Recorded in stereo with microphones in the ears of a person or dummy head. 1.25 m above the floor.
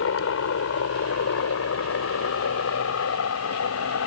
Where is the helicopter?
75° left (ahead or behind); by 4.1 s 80° left.